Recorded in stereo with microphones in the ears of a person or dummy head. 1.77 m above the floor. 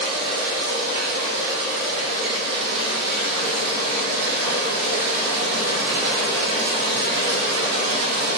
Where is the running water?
55° right (ahead or behind), 1.1 m.